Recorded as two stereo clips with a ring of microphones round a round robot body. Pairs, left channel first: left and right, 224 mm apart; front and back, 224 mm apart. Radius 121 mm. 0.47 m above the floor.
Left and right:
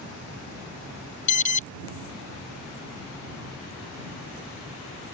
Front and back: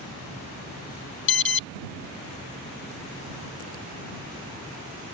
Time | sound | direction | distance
1.3 | an alarm | 35° left | ?